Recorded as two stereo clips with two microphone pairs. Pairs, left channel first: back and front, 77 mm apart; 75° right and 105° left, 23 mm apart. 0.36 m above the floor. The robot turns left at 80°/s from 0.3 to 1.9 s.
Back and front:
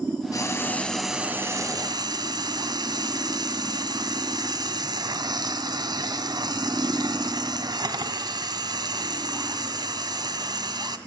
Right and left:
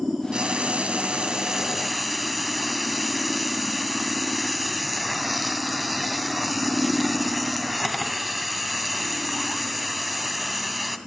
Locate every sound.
0.3 s frying: 145° left, 1.9 m; by 11.0 s 20° left, 1.9 m